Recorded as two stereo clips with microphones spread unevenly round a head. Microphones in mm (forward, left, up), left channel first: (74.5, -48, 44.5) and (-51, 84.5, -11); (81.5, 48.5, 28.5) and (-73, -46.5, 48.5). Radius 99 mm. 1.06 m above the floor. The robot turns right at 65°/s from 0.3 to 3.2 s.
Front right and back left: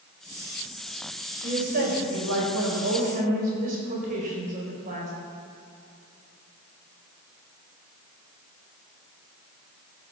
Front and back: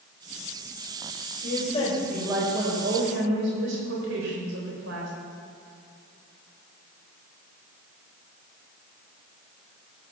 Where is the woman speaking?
70° left, 4.5 m; by 5.1 s 175° right, 4.5 m.